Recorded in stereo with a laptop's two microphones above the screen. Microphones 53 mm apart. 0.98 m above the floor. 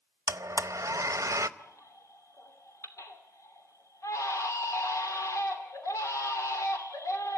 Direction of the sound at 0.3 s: 80° right.